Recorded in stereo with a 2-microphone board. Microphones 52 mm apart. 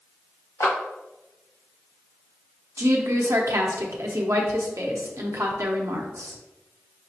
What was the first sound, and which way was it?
A clap, 85° left.